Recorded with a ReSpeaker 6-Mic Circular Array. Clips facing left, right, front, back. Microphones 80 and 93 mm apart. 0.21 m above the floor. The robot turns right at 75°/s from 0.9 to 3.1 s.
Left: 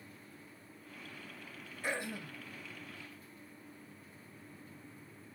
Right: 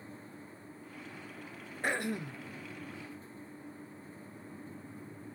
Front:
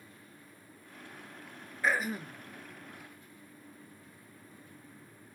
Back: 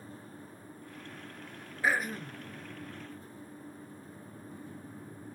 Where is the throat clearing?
100° right, 0.6 m; by 2.4 s 60° right, 0.6 m.